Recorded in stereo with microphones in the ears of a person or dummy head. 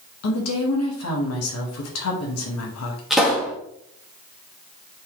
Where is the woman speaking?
85° left, 1.4 m.